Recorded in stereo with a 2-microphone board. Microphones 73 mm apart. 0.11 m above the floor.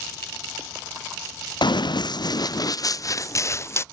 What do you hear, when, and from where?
1.6 s running footsteps: 85° left; by 3.8 s 35° left (ahead or behind)